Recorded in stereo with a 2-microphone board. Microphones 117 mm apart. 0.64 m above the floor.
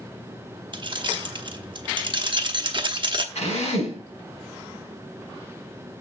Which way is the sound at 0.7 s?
45° right (ahead or behind).